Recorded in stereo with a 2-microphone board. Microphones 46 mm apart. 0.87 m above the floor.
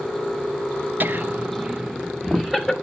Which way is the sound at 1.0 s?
40° right (ahead or behind).